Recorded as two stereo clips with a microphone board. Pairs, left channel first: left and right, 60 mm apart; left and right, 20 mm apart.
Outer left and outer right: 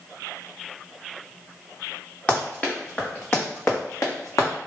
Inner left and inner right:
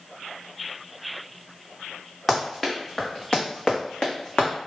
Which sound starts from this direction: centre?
Running footsteps, at 2.3 s.